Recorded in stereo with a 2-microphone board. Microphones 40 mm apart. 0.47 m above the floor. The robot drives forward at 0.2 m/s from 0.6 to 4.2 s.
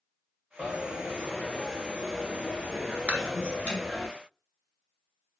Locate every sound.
0.6 s a dropped coin: 40° left (ahead or behind), 2 m; by 4.1 s 30° left (ahead or behind), 3 m
3.1 s dishes clattering: 45° right (ahead or behind), 0.8 m